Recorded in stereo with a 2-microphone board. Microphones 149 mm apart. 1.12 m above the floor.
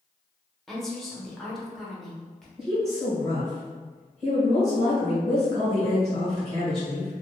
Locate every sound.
0.7 s a woman speaking: centre (ahead or behind), 0.8 m
2.6 s a woman speaking: 40° right (ahead or behind), 1.3 m